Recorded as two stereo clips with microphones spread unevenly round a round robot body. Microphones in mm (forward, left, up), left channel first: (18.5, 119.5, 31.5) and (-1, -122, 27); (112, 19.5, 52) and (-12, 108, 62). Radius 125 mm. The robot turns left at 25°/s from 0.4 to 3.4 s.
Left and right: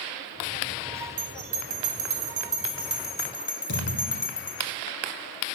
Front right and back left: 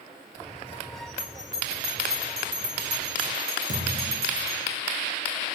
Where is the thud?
110° left, 2.5 m.